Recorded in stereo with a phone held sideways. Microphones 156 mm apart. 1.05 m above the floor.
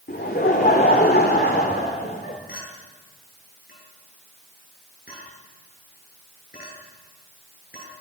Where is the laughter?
80° left, 2.5 m.